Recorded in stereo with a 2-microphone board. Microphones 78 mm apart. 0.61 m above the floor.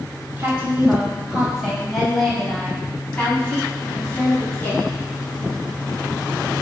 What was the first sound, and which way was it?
A woman speaking, 20° right (ahead or behind).